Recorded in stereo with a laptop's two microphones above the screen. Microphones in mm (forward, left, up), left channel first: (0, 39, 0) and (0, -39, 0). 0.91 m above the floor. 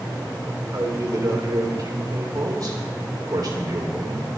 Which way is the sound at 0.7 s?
55° right (ahead or behind).